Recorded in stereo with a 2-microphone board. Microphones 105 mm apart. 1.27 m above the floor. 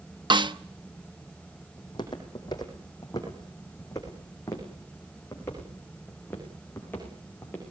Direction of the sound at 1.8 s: 45° left (ahead or behind).